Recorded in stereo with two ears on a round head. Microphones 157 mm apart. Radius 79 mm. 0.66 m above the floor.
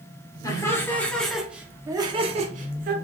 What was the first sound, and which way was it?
Laughter, 20° left (ahead or behind).